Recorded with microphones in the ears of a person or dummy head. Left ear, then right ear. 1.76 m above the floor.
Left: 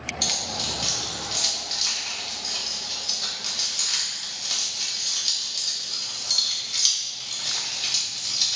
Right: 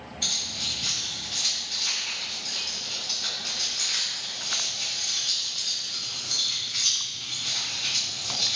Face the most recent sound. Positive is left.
turn(degrees=65)  # may be behind; listen again after turning